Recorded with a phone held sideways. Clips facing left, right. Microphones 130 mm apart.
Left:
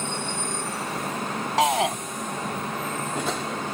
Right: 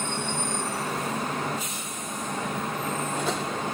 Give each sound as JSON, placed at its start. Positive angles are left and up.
{"t": 1.6, "sound": "a shout", "side_deg": 75}